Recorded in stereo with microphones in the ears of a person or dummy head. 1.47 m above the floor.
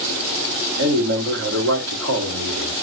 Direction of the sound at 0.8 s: 85° right.